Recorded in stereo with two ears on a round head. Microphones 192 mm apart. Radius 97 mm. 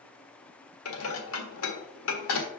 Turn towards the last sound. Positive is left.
turn(degrees=75)  # may be behind; listen again after turning